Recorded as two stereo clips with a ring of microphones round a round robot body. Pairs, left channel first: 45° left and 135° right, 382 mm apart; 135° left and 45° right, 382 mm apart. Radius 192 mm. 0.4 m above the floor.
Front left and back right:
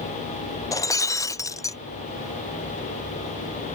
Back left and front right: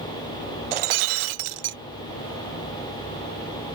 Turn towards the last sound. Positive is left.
turn(degrees=-35)